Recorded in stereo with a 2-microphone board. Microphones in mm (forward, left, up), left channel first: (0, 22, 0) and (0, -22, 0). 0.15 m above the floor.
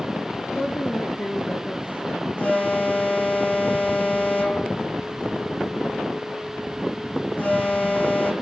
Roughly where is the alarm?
Left.